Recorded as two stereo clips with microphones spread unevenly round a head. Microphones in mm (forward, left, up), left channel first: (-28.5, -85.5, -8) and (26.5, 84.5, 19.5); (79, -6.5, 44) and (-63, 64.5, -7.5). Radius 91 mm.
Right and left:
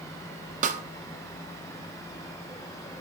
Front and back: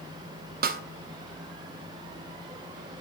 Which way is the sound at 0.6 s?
125° left.